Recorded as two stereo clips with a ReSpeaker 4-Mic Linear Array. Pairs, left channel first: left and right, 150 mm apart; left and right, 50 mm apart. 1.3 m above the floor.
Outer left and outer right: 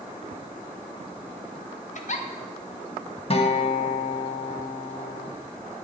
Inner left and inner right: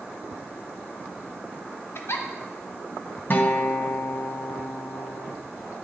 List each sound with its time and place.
1.9 s a giggle: 60° left (ahead or behind), 0.5 m
3.3 s a guitar: 45° left (ahead or behind), 0.5 m